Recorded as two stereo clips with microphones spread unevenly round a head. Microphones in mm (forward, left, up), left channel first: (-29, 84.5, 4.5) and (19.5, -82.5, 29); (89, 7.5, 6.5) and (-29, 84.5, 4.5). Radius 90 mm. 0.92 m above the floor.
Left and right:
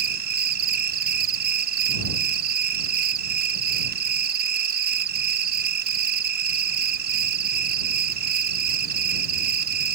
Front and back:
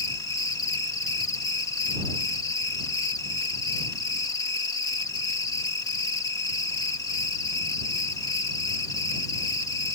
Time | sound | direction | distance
0.0 | an insect | 100° right | ?